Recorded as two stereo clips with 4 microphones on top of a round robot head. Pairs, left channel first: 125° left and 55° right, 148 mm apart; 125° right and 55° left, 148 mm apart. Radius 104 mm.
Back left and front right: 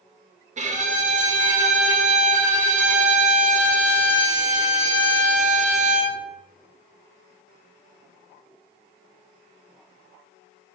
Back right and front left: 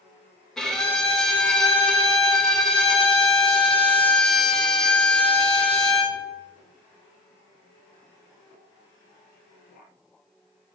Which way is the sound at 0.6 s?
40° right.